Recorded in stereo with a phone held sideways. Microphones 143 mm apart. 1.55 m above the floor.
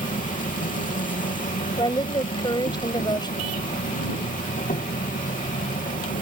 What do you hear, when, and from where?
0.0 s an insect: 70° left (ahead or behind)
1.8 s a woman speaking: 30° left (ahead or behind)